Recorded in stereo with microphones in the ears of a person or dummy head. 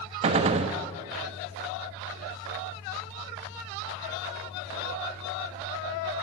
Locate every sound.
0.2 s a gunshot: 35° right (ahead or behind), 1.2 m